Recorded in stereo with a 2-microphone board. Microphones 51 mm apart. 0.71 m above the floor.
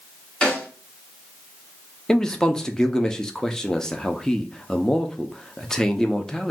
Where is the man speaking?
10° left (ahead or behind), 0.6 m.